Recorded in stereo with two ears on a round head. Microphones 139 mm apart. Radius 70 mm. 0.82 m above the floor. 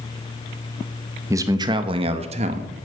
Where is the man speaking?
20° right (ahead or behind), 0.9 m; by 2.7 s 50° right (ahead or behind), 1.4 m.